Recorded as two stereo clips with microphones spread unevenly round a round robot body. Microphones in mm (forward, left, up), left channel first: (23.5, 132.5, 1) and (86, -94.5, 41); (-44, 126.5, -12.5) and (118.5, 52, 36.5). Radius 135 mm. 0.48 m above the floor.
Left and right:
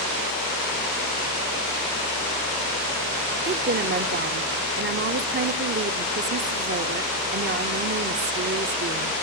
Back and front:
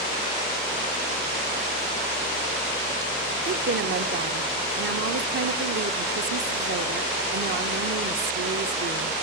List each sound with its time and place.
3.5 s a woman speaking: 35° right, 1.1 m